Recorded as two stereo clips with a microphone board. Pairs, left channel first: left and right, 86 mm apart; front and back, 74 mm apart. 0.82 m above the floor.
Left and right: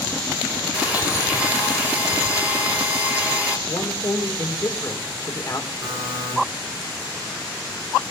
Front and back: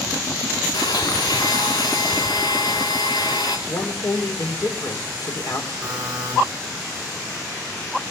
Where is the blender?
15° right, 4 m.